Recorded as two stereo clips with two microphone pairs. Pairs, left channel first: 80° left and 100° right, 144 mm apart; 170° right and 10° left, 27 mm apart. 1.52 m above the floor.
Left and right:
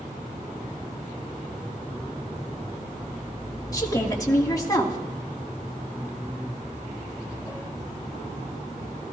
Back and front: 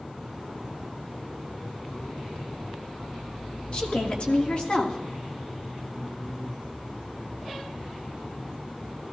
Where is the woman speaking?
145° left, 2 m.